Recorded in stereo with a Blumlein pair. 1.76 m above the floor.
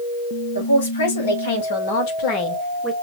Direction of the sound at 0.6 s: 70° left.